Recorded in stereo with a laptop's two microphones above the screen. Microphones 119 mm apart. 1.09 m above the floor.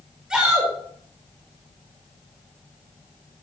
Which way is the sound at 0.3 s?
5° right (ahead or behind).